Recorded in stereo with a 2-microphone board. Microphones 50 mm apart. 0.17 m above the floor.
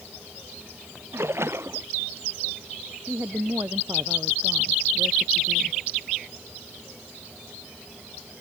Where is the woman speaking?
55° right (ahead or behind).